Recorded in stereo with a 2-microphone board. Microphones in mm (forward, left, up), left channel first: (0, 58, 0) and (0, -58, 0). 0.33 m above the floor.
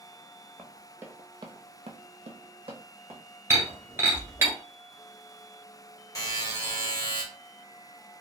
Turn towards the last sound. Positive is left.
turn(degrees=30)  # may be behind; listen again after turning